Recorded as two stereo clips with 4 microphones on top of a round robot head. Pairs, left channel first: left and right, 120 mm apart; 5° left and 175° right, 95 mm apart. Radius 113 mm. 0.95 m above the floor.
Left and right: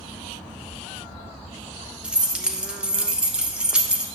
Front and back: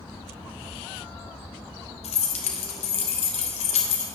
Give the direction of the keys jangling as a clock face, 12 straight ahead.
12 o'clock.